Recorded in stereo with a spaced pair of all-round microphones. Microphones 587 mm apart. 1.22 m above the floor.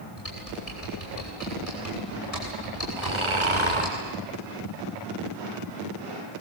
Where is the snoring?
55° right (ahead or behind), 4 m.